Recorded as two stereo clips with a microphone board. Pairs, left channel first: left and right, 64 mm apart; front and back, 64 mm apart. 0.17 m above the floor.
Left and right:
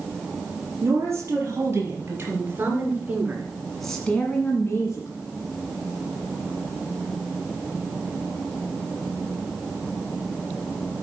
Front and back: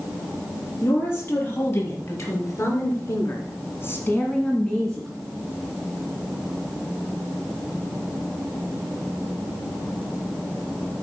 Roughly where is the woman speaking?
Ahead right.